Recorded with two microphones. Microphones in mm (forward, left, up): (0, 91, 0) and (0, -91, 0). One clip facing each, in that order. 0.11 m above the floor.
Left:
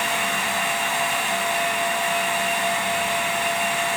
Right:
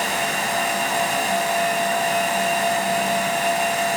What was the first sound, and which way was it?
Only background noise.